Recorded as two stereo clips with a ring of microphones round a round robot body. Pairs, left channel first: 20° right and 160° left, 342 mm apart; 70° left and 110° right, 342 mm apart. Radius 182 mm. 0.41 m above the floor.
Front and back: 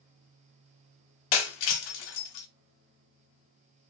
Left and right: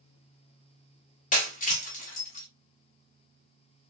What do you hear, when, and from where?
1.3 s breaking glass: straight ahead, 0.6 m